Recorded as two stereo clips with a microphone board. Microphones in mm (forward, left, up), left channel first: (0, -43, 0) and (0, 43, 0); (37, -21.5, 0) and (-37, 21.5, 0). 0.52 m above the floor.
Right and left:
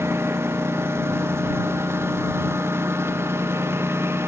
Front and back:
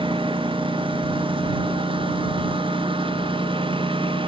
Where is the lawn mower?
150° left.